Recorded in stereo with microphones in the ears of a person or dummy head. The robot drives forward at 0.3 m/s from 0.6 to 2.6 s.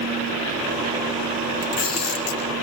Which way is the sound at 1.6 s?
45° left (ahead or behind).